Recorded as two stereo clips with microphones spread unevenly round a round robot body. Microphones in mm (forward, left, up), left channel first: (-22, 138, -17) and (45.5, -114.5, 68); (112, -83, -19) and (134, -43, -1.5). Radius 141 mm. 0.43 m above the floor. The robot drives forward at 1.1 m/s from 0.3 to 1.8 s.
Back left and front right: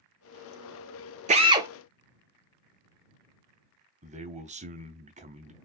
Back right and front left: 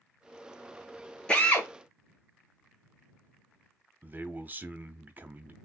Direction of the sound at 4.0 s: Straight ahead.